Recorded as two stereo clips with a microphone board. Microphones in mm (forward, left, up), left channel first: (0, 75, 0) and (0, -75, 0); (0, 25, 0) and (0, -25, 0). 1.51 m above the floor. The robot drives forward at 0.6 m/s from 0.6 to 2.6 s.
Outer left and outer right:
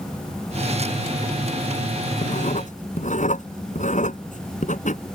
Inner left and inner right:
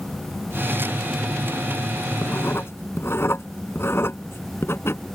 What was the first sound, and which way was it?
Writing, 55° left (ahead or behind).